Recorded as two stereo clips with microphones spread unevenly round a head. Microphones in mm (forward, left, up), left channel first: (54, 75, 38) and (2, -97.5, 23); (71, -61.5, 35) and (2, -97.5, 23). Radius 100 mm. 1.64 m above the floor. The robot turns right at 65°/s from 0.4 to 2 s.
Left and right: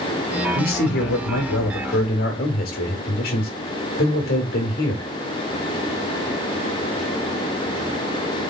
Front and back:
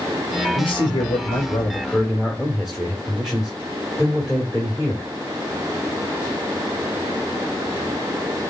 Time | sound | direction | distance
0.6 | a man speaking | 25° left | 1.8 m